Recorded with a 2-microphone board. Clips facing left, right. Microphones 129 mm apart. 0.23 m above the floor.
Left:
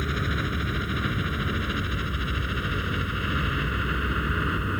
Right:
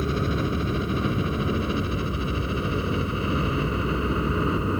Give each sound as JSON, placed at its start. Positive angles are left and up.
{"t": 0.0, "sound": "a helicopter", "side_deg": -30}